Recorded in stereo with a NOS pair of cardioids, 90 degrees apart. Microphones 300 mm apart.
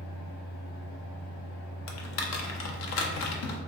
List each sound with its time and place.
0.0 s a fan: 65° left, 0.9 m
1.9 s typing on a keyboard: 60° left, 0.6 m